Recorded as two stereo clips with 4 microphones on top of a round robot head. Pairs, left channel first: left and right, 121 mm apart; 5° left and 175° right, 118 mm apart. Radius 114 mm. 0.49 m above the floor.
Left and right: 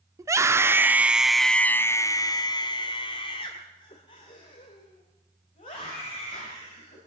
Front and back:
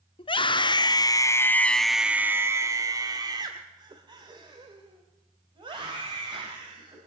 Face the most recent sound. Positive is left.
turn(degrees=140)